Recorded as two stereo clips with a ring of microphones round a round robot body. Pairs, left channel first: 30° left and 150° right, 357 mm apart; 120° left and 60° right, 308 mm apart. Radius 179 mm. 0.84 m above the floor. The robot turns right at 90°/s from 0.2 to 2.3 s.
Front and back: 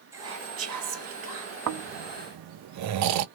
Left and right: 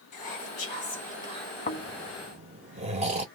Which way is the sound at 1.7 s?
175° left.